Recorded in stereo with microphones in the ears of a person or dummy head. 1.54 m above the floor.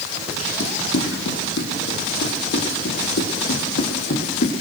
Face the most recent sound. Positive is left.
turn(degrees=45)  # may be behind; listen again after turning